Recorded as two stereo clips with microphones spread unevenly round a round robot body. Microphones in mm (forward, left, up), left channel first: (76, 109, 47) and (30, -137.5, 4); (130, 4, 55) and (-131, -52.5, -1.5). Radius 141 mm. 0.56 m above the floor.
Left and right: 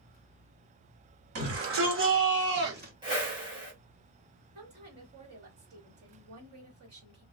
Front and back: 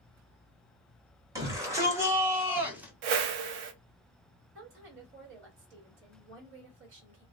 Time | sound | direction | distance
1.4 | a shout | 95° right | 2 m
3.0 | a whoosh | straight behind | 0.6 m
4.5 | a woman speaking | 140° right | 2 m